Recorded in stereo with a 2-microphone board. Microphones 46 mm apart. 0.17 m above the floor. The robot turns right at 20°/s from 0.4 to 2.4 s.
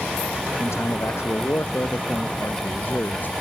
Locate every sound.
0.6 s a man speaking: 95° left; by 3.3 s 130° left